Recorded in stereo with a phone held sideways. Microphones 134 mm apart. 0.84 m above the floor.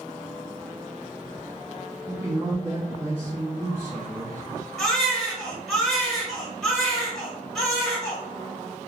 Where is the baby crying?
Centre (ahead or behind), 1.7 m.